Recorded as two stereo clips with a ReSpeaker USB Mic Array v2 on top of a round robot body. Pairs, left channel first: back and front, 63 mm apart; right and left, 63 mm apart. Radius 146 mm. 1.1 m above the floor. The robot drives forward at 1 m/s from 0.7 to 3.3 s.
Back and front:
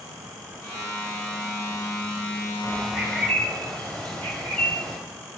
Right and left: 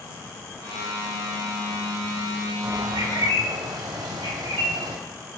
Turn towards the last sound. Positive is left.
turn(degrees=100)